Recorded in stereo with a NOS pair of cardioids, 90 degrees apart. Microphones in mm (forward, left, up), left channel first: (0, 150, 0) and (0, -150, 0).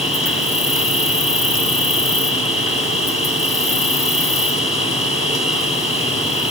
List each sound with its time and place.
0.0 s an insect: 20° left, 2.0 m